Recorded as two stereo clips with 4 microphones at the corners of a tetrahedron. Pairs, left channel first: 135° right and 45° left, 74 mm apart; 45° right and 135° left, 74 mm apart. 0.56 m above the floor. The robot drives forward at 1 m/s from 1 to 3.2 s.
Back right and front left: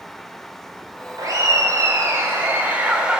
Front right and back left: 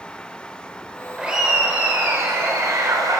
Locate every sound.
1.2 s laughter: 60° left, 2.5 m; by 3.2 s 120° left, 2.5 m